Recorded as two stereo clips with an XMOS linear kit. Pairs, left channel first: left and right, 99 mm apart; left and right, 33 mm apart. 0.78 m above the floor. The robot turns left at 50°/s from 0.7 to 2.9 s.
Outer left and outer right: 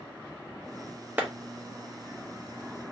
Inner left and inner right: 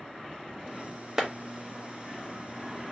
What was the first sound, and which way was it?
A clap, 15° right (ahead or behind).